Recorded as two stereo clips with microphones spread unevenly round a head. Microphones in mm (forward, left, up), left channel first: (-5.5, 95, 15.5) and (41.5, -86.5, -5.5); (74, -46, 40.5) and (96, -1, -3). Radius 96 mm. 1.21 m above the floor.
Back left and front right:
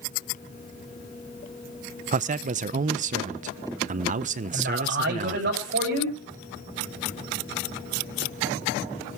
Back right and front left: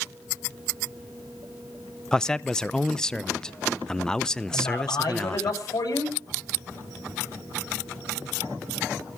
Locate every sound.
2.1 s a man speaking: 30° right, 0.7 m
4.5 s a man speaking: 110° right, 8 m